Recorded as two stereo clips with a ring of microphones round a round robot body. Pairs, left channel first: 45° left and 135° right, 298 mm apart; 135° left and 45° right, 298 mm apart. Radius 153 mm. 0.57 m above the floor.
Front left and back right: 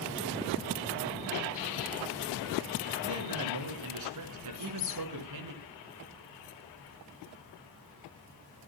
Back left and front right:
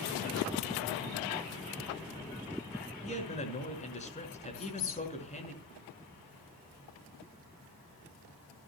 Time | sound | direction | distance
3.0 | a man speaking | 160° right | 6 m
4.5 | a squeak | 90° left | 5.5 m